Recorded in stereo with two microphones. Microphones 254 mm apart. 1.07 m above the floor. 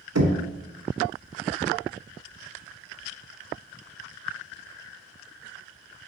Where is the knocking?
85° right, 1.0 m.